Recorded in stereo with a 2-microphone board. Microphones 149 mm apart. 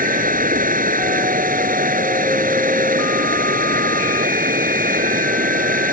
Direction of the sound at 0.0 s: 70° right (ahead or behind).